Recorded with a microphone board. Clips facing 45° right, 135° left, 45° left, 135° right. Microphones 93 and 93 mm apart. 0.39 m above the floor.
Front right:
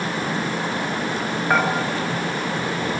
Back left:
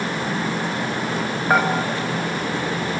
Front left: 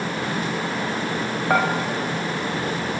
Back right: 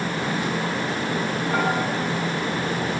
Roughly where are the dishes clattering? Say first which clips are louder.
Back left 2 dB, front left 4 dB; ahead left.